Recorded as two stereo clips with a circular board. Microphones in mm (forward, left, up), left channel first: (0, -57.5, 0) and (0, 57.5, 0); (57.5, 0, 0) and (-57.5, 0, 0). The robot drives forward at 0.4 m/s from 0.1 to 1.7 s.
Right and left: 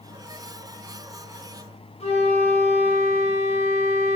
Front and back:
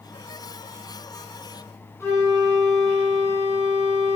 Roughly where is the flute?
Ahead right.